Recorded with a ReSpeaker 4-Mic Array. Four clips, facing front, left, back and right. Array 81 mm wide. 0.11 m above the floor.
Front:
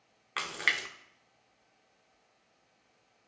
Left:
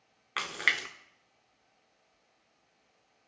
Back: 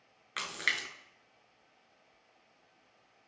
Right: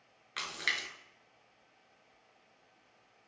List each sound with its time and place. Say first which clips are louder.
0.4 s a splash: left 6 dB, front 3 dB; 70° left, 0.6 m